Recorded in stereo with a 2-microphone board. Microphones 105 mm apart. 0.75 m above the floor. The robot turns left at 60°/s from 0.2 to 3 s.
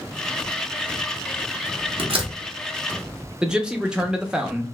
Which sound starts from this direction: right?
A door slam, at 2.0 s.